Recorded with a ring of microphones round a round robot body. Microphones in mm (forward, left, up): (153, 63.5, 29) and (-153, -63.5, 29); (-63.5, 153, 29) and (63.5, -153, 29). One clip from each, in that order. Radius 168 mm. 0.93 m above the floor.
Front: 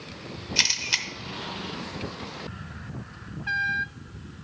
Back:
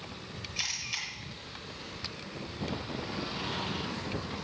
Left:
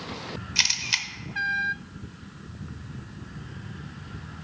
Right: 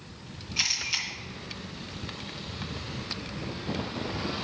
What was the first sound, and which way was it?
A camera shutter, 60° left.